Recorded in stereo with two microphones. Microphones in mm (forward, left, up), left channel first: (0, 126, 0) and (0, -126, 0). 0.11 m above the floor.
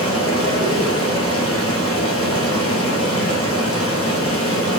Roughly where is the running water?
Left.